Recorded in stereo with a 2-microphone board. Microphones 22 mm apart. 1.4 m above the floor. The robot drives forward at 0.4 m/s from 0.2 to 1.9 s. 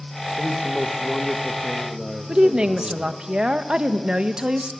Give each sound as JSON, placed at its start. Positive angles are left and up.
{"t": 0.4, "sound": "a man speaking", "side_deg": 5, "distance_m": 1.5}
{"t": 2.3, "sound": "a woman speaking", "side_deg": -40, "distance_m": 1.3}